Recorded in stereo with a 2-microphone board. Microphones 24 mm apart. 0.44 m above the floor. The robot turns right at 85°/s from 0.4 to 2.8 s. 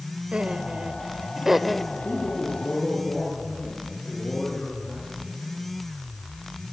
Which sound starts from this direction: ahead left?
A man speaking, at 1.9 s.